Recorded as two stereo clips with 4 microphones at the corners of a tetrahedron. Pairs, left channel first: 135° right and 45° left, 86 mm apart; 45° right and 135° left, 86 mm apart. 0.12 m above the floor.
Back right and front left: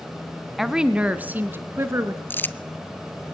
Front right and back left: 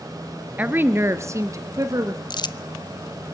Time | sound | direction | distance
0.6 | a woman speaking | 130° left | 1.1 m
2.3 | crumpling | 70° right | 0.6 m